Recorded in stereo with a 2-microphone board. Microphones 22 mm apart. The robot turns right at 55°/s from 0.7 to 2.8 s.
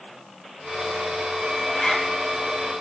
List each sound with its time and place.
1.7 s a zipper: 35° left (ahead or behind), 1.1 m; by 2.1 s 30° left (ahead or behind), 1.1 m